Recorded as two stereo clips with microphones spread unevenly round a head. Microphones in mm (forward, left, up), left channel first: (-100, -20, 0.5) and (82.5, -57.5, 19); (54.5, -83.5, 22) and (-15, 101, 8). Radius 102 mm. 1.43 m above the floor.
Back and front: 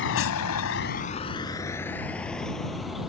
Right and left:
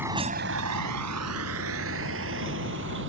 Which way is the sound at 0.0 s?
165° right.